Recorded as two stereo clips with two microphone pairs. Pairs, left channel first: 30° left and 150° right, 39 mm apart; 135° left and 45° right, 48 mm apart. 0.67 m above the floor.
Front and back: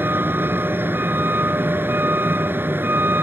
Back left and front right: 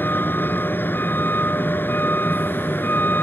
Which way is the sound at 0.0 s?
Straight behind.